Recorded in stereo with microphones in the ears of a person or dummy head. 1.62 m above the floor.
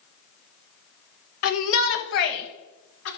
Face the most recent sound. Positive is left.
turn(degrees=80)